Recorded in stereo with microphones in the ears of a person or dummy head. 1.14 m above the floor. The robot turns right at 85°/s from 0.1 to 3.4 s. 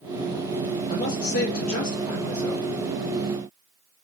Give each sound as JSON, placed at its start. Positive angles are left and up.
{"t": 0.9, "sound": "a man speaking", "azimuth_deg": 30, "distance_m": 1.1}